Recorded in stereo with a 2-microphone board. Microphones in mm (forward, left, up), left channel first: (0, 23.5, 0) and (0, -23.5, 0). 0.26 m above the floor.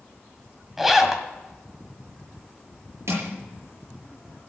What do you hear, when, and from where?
0.8 s a zipper: 5° right (ahead or behind), 1.4 m
3.1 s crushing: 70° right (ahead or behind), 5 m